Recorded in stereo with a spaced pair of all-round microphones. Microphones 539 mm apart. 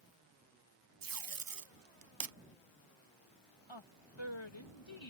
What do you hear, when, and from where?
1.0 s tape being pulled: 40° right (ahead or behind)
3.7 s a woman speaking: 55° left (ahead or behind)